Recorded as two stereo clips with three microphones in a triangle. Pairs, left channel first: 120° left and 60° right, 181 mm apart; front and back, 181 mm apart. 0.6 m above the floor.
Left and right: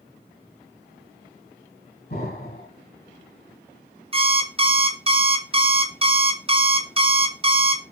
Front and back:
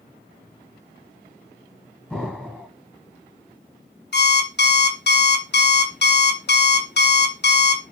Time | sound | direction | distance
2.1 | an explosion | 90° left | 1.8 m
4.1 | an alarm clock | 5° right | 0.6 m